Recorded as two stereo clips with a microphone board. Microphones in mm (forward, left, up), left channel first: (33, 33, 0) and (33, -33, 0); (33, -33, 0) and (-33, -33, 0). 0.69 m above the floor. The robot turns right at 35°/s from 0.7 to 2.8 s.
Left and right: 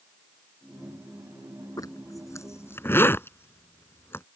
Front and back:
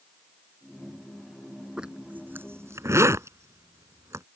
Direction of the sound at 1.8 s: 105° left.